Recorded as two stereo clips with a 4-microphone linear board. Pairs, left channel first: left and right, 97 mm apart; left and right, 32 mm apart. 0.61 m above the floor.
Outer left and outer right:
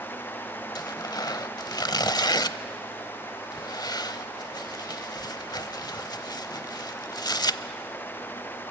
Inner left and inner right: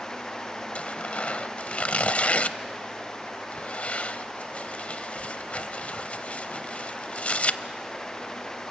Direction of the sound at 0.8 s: 45° left (ahead or behind).